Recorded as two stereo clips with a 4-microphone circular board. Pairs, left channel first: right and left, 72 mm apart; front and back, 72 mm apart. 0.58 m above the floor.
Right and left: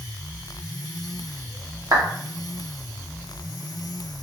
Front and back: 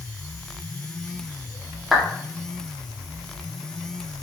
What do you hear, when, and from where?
1.9 s a clap: 95° left, 0.9 m